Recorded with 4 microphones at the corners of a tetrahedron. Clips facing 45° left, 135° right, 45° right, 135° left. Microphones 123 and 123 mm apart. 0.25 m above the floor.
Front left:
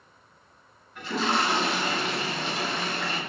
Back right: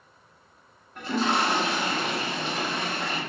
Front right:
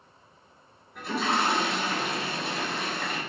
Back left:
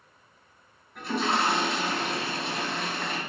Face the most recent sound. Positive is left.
turn(degrees=-130)